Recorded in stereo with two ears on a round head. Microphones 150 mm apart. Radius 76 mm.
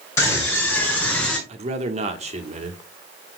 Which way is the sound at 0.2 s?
15° left (ahead or behind).